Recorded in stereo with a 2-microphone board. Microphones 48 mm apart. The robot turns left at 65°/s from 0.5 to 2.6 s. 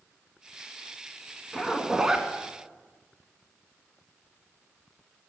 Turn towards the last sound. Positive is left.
turn(degrees=-55)